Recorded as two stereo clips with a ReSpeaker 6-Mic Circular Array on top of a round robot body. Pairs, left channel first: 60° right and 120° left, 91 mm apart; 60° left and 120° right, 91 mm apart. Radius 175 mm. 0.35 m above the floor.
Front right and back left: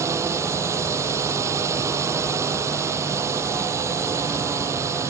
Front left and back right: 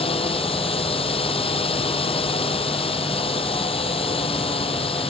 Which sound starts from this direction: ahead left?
A drone, at 0.0 s.